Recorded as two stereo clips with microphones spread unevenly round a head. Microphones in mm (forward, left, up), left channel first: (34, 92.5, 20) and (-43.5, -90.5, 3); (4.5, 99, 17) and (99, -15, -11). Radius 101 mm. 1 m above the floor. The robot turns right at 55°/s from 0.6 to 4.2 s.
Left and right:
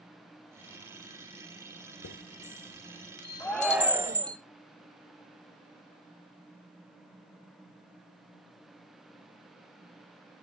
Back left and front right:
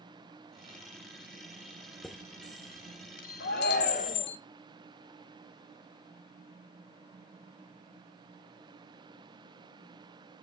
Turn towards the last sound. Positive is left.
turn(degrees=-170)